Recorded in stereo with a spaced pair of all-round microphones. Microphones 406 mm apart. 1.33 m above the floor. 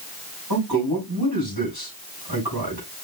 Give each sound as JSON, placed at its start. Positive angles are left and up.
{"t": 0.5, "sound": "a man speaking", "side_deg": -80, "distance_m": 5.5}